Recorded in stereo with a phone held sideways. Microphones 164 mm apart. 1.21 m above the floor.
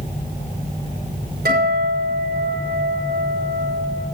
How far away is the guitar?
About 5 m.